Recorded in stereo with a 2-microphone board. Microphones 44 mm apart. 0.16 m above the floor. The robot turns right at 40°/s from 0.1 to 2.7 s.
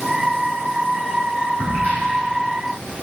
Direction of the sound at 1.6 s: 50° left (ahead or behind).